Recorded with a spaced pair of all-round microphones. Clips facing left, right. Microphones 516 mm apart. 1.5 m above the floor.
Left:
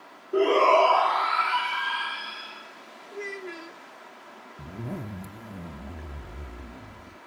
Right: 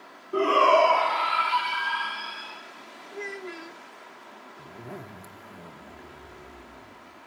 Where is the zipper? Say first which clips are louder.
Left 6 dB; 50° left (ahead or behind), 0.9 m.